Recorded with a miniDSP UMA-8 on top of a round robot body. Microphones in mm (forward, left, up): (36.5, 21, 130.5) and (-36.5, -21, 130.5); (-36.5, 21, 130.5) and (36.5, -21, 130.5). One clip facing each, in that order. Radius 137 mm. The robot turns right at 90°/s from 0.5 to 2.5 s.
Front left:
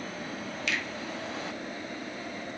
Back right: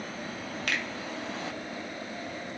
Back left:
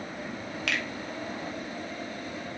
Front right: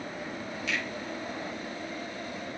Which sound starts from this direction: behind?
A finger snap, at 0.7 s.